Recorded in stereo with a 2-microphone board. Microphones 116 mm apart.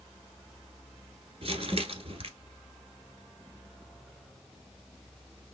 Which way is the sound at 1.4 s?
60° right (ahead or behind).